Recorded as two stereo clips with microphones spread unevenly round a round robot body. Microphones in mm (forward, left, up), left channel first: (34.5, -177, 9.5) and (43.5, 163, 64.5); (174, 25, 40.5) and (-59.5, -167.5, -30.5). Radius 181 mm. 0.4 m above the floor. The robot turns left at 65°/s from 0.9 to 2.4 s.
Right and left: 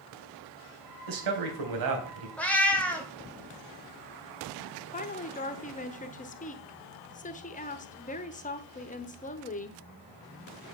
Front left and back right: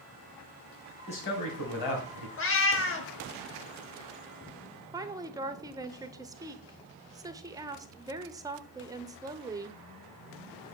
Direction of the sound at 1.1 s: 115° left.